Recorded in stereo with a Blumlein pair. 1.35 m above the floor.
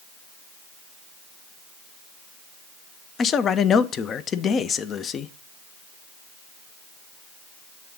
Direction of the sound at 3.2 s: 25° left.